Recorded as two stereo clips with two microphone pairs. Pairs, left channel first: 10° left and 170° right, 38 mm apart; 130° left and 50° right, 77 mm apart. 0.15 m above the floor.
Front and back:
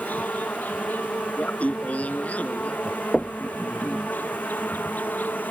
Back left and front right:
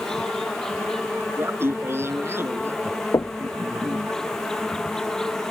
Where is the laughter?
10° right.